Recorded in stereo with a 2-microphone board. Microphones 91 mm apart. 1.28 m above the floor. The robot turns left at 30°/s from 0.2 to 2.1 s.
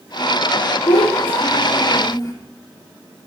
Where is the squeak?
I don't hear a squeak.